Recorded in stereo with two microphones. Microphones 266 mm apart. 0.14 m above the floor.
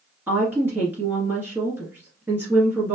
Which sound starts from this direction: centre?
A woman speaking, at 0.3 s.